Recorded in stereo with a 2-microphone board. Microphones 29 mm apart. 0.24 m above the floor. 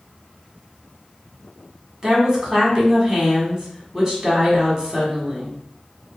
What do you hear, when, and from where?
2.0 s a woman speaking: 20° right (ahead or behind), 1.4 m